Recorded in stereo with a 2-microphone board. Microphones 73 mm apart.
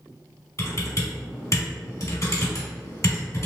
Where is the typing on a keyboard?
45° left (ahead or behind), 1.9 m.